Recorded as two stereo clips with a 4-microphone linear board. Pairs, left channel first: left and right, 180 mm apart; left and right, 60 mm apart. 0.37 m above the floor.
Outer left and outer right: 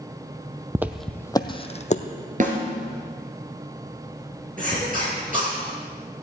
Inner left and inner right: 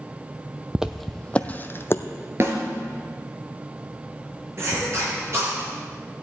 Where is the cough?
45° right (ahead or behind), 6.5 m.